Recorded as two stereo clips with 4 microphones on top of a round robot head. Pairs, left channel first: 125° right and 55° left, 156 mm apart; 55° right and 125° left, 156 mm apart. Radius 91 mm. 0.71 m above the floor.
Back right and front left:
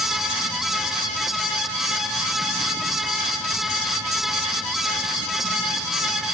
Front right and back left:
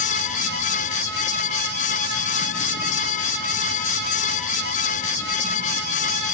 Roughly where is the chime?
I don't hear a chime.